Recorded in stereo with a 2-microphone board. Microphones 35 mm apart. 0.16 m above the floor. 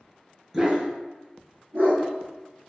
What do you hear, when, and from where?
0.5 s a dog barking: 15° right (ahead or behind), 0.6 m; by 2.0 s 70° right (ahead or behind), 1.2 m